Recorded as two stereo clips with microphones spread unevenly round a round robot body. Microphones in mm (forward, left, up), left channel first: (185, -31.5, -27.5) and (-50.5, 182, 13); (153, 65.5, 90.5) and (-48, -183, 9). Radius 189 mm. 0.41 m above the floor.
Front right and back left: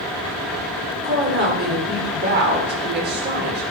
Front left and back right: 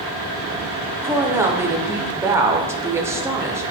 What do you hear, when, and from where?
1.0 s a woman speaking: 175° right, 0.9 m